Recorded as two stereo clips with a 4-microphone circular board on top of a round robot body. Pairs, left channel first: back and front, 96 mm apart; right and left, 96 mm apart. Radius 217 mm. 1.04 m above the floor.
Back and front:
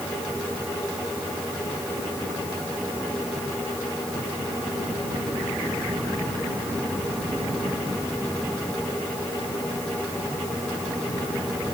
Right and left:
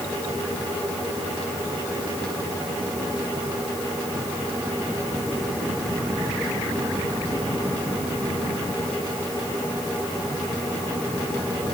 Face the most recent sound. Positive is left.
No sound to turn to.